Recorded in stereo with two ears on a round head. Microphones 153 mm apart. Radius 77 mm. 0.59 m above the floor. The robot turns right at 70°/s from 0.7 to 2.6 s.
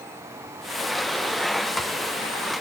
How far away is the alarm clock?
I don't hear an alarm clock.